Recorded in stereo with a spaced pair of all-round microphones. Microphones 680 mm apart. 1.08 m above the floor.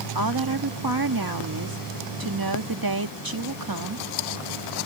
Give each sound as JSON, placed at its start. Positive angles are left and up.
{"t": 0.1, "sound": "a woman speaking", "side_deg": -30}